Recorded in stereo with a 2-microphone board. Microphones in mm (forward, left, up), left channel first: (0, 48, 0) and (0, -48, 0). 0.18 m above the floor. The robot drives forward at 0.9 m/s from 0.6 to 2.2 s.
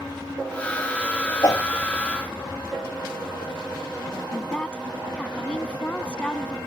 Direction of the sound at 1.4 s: 40° left (ahead or behind).